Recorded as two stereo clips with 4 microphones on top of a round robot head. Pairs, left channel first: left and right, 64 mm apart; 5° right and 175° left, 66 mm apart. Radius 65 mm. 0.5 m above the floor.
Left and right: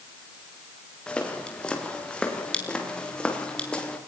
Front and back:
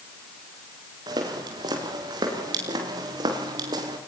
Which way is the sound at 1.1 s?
165° left.